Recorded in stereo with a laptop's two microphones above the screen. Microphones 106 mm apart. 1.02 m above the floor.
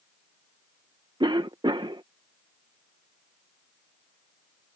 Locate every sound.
1.2 s a cough: 45° right (ahead or behind)